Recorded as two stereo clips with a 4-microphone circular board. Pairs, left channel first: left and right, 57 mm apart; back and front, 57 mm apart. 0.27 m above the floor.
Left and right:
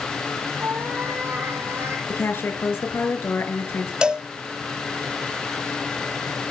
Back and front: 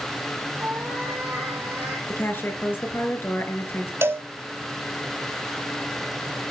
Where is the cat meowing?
50° right, 6 m; by 2.0 s 55° right, 6.5 m.